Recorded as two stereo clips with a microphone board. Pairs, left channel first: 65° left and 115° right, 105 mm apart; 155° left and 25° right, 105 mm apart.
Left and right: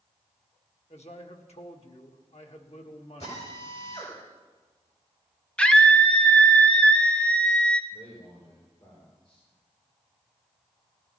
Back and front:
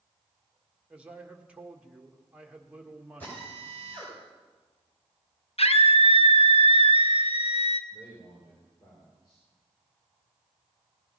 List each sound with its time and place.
0.9 s a man speaking: 55° left, 1.6 m
3.2 s a drill: 85° left, 7 m
5.6 s a scream: 145° left, 1.0 m
7.9 s a man speaking: 110° left, 4.5 m